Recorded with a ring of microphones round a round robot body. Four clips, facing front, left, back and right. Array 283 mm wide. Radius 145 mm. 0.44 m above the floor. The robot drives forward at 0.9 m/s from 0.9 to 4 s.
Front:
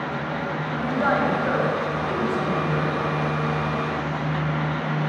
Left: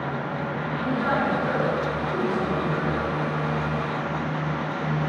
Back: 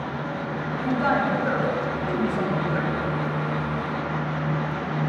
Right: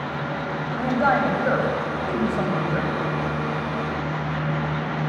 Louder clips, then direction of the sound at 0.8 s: Right 5 dB, front 1 dB; 80° right.